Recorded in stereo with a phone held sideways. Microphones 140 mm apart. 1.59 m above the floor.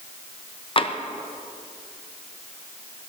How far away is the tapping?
About 0.6 m.